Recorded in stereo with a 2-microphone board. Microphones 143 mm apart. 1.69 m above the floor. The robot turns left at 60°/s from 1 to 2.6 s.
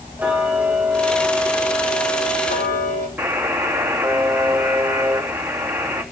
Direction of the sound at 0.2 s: 170° right.